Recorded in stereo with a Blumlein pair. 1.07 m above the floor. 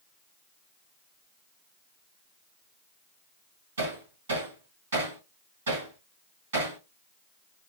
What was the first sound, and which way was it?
Hammering, 65° right.